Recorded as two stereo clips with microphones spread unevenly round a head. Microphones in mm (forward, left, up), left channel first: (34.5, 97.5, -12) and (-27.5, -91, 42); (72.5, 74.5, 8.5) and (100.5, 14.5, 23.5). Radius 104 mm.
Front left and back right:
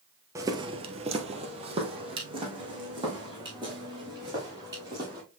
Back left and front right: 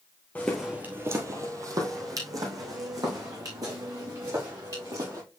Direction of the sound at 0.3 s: 160° right.